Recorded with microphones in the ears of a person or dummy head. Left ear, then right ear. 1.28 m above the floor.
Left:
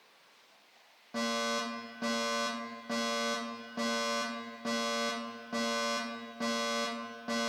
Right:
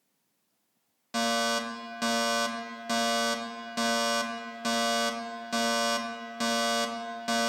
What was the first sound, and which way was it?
A fire alarm, 60° right (ahead or behind).